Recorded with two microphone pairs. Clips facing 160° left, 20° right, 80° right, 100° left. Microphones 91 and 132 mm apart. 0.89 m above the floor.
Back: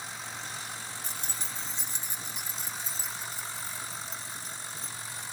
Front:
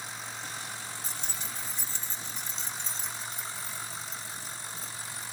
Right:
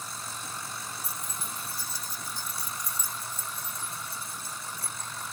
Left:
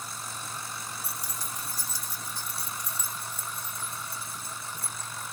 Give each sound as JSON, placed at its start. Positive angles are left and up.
{"t": 1.0, "sound": "keys jangling", "azimuth_deg": 125}